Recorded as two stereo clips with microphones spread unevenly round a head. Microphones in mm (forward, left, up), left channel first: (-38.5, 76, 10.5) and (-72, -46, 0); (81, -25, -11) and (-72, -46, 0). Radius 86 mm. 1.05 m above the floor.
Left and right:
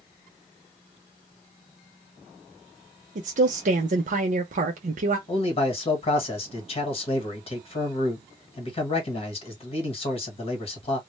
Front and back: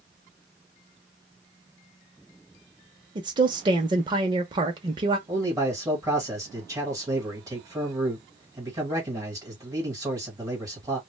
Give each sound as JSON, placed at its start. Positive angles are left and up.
{"t": 3.1, "sound": "a woman speaking", "azimuth_deg": -110, "distance_m": 0.6}
{"t": 5.3, "sound": "a man speaking", "azimuth_deg": 115, "distance_m": 1.5}